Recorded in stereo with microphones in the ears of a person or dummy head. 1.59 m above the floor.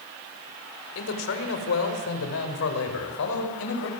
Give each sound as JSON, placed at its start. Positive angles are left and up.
{"t": 0.9, "sound": "a man speaking", "side_deg": 80, "distance_m": 5.0}